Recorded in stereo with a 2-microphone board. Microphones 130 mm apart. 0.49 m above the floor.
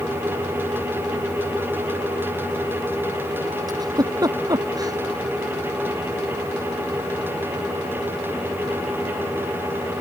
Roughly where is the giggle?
Right.